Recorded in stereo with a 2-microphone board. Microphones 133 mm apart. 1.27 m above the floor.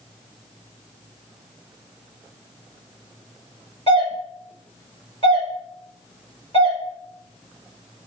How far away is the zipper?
No zipper in this recording.